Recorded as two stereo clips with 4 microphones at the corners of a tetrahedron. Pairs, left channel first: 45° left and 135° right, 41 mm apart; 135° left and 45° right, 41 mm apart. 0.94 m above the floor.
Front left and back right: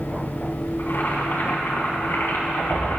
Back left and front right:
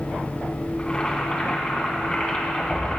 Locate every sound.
0.8 s boiling: 70° left, 3 m